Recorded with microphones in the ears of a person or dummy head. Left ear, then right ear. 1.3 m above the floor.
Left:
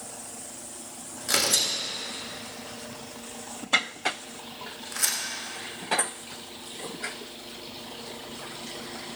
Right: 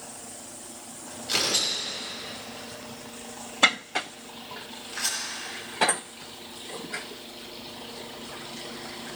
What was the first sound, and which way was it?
Tearing paper, 50° left (ahead or behind).